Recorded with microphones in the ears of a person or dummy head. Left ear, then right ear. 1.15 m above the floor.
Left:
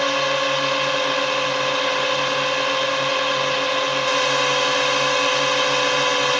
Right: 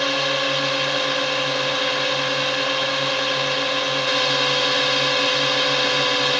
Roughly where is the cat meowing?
I don't hear a cat meowing.